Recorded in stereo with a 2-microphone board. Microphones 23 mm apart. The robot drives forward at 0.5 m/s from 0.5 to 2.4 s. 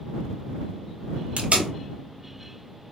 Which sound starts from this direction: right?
Tape being pulled, at 1.4 s.